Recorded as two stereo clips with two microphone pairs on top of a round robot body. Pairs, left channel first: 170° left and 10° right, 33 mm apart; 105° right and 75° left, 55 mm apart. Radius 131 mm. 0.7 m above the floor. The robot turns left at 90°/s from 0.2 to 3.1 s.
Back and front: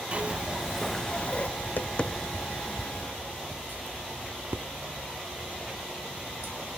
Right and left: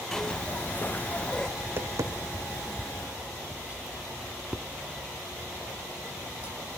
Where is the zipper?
45° right, 0.6 m; by 1.5 s 160° right, 0.6 m.